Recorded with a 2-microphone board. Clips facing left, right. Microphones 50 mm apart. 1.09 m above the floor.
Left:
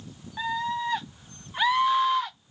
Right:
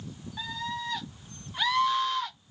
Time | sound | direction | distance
0.4 | a scream | 20° left (ahead or behind) | 0.8 m